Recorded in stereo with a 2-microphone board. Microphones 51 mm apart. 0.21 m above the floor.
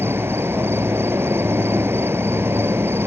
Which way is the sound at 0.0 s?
55° right (ahead or behind).